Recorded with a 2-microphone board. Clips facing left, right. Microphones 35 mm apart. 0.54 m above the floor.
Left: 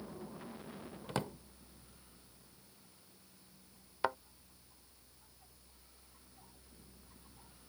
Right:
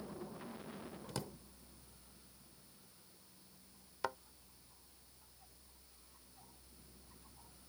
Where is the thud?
25° left (ahead or behind).